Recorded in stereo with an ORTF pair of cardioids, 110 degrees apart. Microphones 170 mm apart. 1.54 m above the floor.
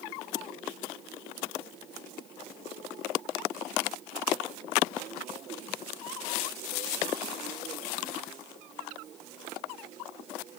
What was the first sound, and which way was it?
Only background noise.